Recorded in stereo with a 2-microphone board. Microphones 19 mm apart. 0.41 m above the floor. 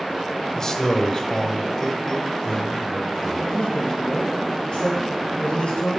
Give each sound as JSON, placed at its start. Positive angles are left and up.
{"t": 0.6, "sound": "a man speaking", "side_deg": 30, "distance_m": 1.0}
{"t": 3.5, "sound": "a man speaking", "side_deg": 65, "distance_m": 2.5}